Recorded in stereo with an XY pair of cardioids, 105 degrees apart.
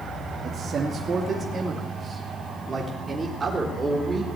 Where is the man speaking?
50° right, 2 m; by 4.2 s 25° right, 4 m.